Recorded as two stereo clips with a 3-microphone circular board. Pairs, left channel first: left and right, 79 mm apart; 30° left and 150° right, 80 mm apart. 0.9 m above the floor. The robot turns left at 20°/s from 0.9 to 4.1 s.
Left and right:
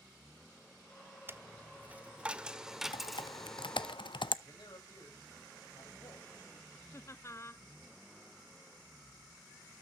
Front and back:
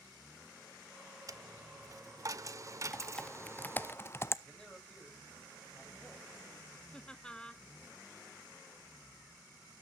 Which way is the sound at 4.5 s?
110° left.